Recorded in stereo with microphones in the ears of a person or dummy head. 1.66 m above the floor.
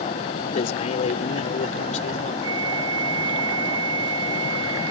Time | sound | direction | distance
0.5 | a man speaking | 35° left (ahead or behind) | ?
2.4 | a flute | 20° right (ahead or behind) | ?